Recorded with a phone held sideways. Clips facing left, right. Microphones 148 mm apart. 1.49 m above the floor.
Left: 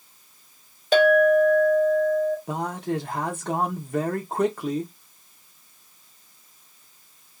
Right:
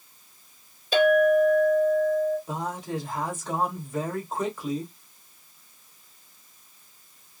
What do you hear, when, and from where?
0.9 s a clink: 65° left (ahead or behind), 1.9 m
2.5 s a man speaking: 60° left (ahead or behind), 0.9 m